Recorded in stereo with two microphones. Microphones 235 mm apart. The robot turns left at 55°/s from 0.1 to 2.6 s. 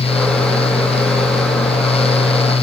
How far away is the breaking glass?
I don't hear breaking glass.